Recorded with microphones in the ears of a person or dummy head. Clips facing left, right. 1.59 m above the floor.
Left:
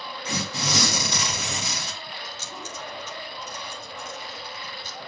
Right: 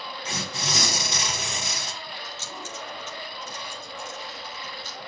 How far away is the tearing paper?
About 2.0 m.